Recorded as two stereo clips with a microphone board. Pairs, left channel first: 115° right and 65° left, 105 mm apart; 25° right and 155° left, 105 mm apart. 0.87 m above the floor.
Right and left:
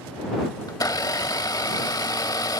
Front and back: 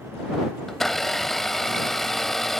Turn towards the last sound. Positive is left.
turn(degrees=-105)